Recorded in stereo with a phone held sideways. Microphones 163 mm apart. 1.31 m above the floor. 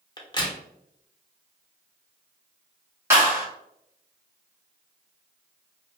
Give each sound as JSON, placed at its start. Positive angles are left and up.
{"t": 0.2, "sound": "a crack", "side_deg": 25, "distance_m": 0.6}
{"t": 3.1, "sound": "a clap", "side_deg": -15, "distance_m": 1.1}